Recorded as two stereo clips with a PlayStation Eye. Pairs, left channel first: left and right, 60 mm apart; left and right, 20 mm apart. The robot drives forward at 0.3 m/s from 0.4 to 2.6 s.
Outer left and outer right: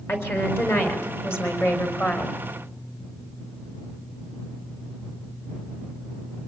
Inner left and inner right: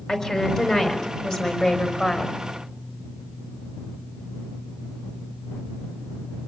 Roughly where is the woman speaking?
Left.